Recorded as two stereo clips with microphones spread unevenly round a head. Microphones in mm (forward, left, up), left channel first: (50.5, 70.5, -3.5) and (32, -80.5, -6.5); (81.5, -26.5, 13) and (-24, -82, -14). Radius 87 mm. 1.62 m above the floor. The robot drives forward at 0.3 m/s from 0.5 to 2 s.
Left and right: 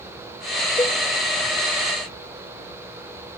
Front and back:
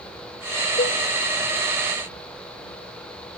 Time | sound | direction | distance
0.8 | a cowbell | 10° left | ?